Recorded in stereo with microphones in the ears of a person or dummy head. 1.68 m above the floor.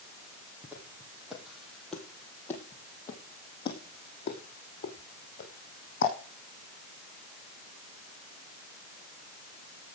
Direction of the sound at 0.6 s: 15° right (ahead or behind).